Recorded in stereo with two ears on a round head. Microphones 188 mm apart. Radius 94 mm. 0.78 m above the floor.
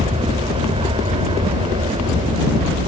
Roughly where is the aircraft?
Right.